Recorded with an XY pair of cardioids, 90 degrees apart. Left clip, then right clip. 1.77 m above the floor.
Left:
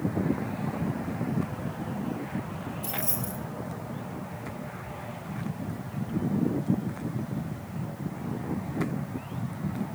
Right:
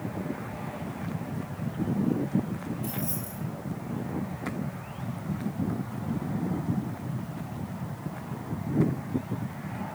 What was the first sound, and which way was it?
Keys jangling, 55° left.